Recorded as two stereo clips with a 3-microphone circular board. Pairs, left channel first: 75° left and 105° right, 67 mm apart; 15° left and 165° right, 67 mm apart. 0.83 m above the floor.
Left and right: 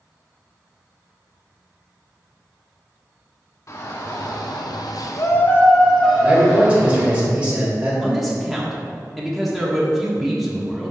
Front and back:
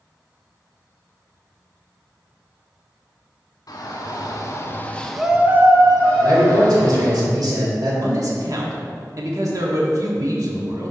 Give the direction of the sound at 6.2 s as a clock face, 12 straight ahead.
6 o'clock.